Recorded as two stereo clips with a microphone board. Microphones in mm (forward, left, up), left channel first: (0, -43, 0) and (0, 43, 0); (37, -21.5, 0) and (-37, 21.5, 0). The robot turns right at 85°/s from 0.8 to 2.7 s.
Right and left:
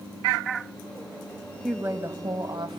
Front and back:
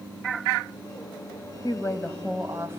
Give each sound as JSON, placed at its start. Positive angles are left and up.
{"t": 1.6, "sound": "a woman speaking", "azimuth_deg": 5, "distance_m": 2.5}